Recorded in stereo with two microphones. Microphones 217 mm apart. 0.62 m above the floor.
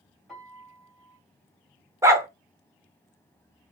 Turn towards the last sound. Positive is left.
turn(degrees=-15)  # may be behind; listen again after turning